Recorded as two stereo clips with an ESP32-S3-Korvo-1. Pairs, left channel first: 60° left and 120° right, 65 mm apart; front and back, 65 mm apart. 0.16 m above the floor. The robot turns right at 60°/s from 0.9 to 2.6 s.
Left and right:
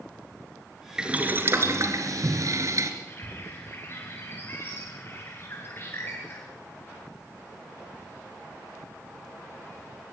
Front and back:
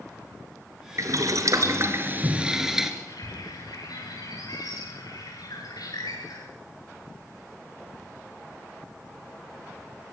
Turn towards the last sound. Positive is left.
turn(degrees=5)